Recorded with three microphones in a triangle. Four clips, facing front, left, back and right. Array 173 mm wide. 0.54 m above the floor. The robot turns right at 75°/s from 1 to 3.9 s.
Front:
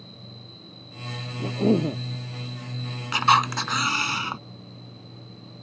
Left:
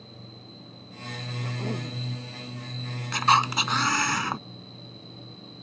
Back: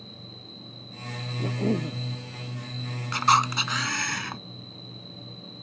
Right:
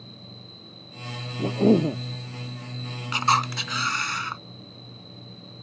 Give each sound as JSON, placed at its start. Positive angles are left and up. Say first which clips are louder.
{"t": 0.0, "sound": "an insect", "louder": "right 1 dB, even", "azimuth_deg": -80}
{"t": 1.4, "sound": "a cough", "louder": "right 15 dB, front 5 dB", "azimuth_deg": -95}
{"t": 3.1, "sound": "a camera shutter", "louder": "left 1 dB, front 2 dB", "azimuth_deg": 15}